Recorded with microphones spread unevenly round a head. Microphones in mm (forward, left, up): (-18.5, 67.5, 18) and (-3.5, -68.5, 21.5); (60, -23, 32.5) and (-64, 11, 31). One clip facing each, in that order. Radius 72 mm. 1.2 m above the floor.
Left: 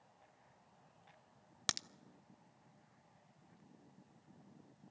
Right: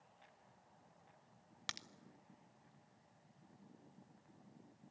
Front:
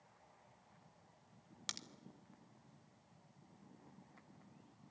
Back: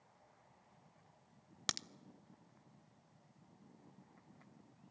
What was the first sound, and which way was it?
A crack, 130° left.